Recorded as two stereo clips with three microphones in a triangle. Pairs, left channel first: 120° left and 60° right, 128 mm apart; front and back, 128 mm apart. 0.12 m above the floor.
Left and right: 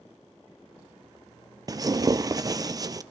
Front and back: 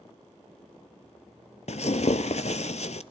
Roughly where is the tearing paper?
Ahead.